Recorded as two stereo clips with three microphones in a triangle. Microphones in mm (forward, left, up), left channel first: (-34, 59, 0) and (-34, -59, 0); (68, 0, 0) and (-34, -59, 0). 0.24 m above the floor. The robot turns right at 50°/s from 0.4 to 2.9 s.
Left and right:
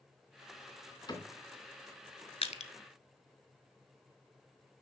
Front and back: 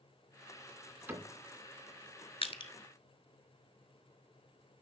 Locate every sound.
1.1 s a cupboard door: 135° left, 2.5 m; by 1.3 s 150° left, 2.5 m
2.4 s crushing: 65° left, 0.8 m; by 2.7 s 80° left, 0.8 m